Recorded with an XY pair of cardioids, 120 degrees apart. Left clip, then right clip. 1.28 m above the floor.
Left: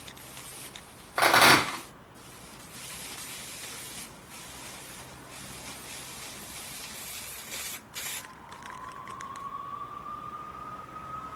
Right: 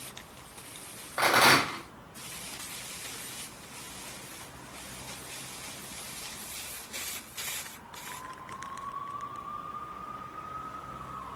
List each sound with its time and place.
1.2 s a rattle: 25° left, 1.6 m